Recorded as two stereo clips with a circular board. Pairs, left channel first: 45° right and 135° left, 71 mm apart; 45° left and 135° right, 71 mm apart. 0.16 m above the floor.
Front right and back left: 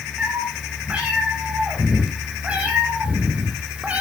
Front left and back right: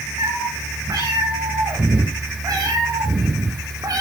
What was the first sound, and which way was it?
A cat meowing, 150° right.